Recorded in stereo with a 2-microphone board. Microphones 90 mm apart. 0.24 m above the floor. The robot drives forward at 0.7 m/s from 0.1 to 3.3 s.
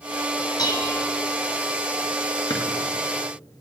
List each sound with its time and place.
0.6 s dishes clattering: 50° left (ahead or behind), 1.4 m; by 1.0 s 40° left (ahead or behind), 1.5 m
2.5 s a drawer: 55° left (ahead or behind), 1.9 m